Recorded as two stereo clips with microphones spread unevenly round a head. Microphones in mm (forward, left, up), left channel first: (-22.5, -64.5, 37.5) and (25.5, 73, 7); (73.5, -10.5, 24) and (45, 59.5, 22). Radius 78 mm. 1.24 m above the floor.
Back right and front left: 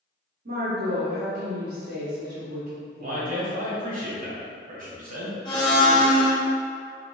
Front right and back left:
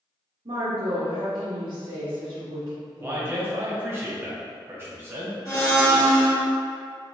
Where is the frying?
No frying in this recording.